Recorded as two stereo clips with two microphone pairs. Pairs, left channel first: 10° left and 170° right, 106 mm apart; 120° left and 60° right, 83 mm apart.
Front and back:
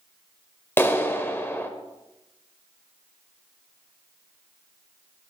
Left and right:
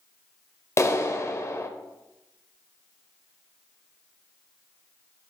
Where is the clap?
70° left, 1.3 m.